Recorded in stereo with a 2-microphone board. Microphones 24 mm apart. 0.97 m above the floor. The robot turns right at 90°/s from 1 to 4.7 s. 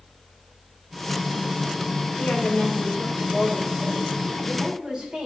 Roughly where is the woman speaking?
Left.